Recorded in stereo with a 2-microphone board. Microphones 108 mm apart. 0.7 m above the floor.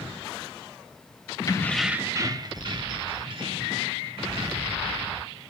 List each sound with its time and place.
1.5 s keys jangling: 35° left (ahead or behind), 0.5 m; by 5.3 s 55° right (ahead or behind), 4 m